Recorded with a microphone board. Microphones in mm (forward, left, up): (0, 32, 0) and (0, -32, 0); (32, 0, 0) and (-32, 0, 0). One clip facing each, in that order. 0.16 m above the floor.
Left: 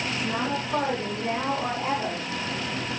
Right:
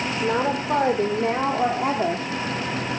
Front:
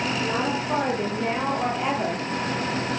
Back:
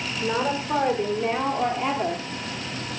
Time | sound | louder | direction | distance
0.2 | a woman speaking | right 7 dB, even | 90° right | 6 m